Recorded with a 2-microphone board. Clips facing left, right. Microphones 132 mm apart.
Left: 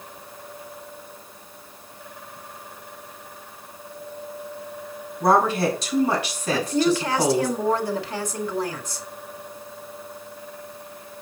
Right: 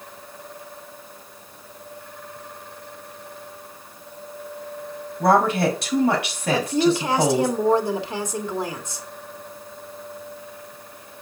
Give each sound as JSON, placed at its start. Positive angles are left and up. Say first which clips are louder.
{"t": 5.2, "sound": "a woman speaking", "louder": "right 1 dB", "side_deg": -60, "distance_m": 4.5}
{"t": 6.5, "sound": "a woman speaking", "louder": "right 1 dB", "side_deg": -20, "distance_m": 1.7}